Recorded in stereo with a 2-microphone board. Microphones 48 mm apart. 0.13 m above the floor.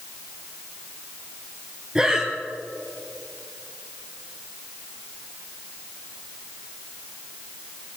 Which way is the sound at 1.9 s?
15° right (ahead or behind).